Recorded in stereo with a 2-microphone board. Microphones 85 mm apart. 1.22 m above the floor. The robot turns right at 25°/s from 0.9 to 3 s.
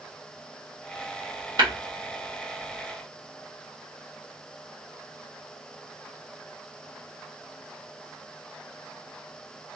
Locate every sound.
1.6 s tapping: 60° right (ahead or behind), 1.1 m